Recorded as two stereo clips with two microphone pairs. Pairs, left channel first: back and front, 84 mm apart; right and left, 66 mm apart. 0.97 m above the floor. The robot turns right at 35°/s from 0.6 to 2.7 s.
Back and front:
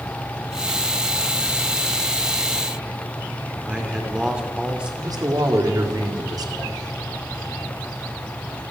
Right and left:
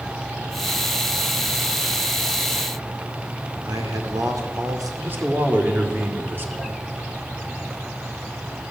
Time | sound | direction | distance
3.6 | a man speaking | 75° left | 2.5 m
5.0 | a man speaking | 35° left | 2 m